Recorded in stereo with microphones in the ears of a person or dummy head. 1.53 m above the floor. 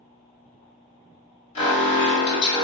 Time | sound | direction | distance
1.6 | an alarm | 35° left (ahead or behind) | 1.5 m